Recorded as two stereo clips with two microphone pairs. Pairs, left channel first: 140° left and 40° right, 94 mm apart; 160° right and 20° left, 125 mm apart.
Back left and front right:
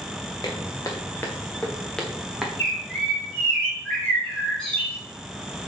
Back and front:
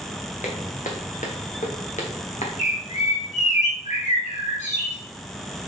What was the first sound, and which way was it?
Footsteps, 175° right.